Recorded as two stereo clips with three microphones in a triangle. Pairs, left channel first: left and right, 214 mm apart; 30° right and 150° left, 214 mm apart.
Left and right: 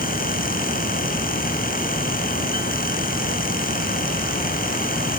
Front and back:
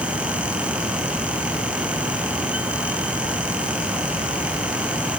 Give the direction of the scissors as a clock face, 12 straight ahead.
I don't hear scissors.